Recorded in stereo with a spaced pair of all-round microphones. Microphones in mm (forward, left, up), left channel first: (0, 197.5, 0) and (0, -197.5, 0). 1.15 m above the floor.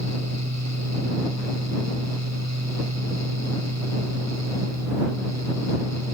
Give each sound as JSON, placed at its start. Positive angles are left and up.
{"t": 0.0, "sound": "a fan", "side_deg": -45}